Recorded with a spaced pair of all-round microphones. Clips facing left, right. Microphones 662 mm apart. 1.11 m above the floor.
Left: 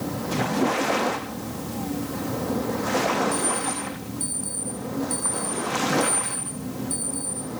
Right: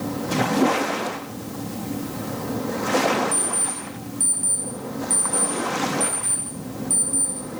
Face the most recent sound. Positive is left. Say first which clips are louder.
# left 3 dB
turn(degrees=-85)